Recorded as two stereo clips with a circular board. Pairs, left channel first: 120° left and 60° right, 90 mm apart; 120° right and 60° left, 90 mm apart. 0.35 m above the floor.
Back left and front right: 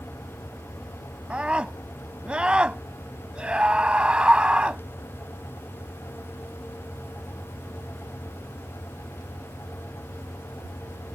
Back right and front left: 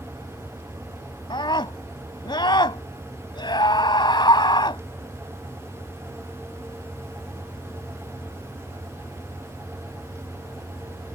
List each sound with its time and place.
1.3 s a scream: 140° right